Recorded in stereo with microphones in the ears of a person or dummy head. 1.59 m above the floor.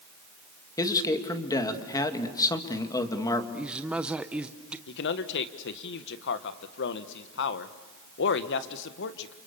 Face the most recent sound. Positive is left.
turn(degrees=65)  # may be behind; listen again after turning